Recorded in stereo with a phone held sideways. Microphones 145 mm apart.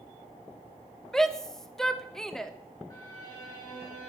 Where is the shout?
5° left (ahead or behind), 1.1 m.